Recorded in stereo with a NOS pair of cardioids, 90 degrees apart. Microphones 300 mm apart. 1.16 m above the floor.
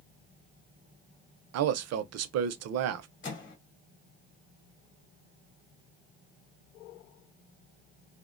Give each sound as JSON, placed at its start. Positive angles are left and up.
{"t": 1.5, "sound": "a man speaking", "azimuth_deg": -55, "distance_m": 0.5}
{"t": 3.2, "sound": "a microwave", "azimuth_deg": 40, "distance_m": 0.9}